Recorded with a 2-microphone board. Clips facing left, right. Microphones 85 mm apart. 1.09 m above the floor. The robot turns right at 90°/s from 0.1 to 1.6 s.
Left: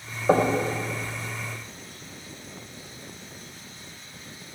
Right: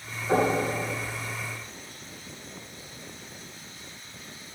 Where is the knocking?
65° left (ahead or behind), 3 m; by 0.6 s 40° left (ahead or behind), 3 m.